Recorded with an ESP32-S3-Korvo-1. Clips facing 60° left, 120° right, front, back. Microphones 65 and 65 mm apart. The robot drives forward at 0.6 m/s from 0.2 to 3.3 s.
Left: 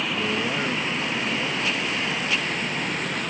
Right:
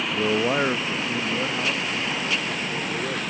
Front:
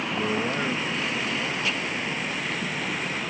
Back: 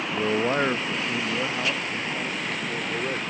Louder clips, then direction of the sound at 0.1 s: Right 7 dB, back 5 dB; 120° right.